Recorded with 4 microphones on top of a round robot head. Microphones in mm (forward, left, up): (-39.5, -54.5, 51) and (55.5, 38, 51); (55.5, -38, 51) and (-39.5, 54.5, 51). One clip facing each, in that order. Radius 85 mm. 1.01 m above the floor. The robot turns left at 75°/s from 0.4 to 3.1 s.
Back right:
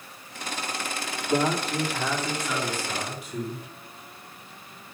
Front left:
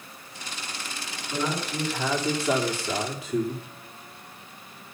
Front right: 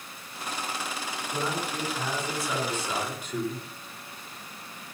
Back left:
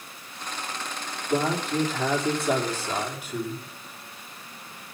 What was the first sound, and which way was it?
A man speaking, 170° right.